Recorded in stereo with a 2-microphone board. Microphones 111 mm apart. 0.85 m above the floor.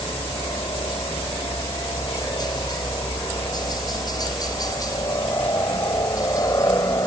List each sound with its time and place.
0.0 s a helicopter: 40° left (ahead or behind); by 7.1 s 30° left (ahead or behind)